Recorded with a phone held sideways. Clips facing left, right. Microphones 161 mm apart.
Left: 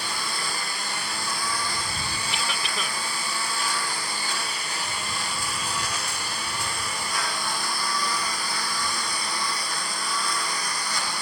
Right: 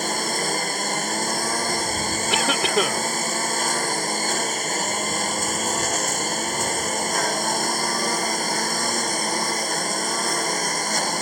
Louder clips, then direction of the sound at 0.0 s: Right 8 dB; 45° right (ahead or behind).